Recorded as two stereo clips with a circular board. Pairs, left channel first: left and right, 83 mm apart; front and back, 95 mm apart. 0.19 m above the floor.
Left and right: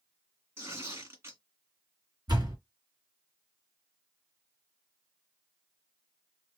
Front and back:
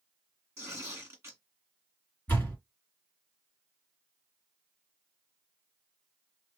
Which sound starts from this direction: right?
A door slam, at 2.3 s.